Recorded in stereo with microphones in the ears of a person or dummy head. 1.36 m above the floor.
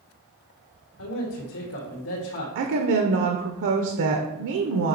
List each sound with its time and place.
1.0 s a man speaking: 85° left, 1.7 m
2.5 s a woman speaking: 65° right (ahead or behind), 0.8 m